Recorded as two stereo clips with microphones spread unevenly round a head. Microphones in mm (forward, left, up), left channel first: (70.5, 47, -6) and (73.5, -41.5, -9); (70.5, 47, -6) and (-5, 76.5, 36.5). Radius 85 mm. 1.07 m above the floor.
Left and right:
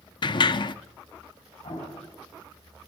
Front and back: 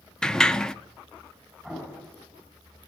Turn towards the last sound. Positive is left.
turn(degrees=75)